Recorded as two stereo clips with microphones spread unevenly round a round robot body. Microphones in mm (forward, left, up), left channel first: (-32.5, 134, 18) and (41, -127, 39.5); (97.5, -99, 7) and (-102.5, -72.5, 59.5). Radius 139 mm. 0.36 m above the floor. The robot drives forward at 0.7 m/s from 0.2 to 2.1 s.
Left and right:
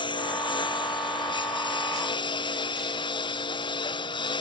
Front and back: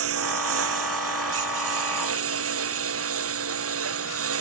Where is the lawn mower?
Straight behind.